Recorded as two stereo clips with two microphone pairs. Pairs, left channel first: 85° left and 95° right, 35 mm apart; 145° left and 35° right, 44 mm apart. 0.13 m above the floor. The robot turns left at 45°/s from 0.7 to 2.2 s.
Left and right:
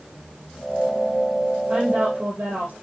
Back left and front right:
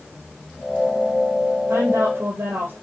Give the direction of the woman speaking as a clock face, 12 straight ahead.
1 o'clock.